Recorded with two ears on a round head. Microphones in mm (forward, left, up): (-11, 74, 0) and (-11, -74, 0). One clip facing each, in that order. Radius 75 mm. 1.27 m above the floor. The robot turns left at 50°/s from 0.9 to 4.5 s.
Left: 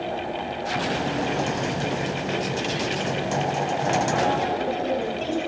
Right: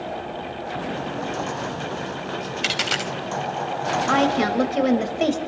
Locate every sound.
2.6 s a dropped coin: 75° right (ahead or behind), 3.5 m; by 3.1 s 70° right (ahead or behind), 3.5 m
4.1 s a woman speaking: 85° right, 7 m; by 5.4 s 70° right (ahead or behind), 7 m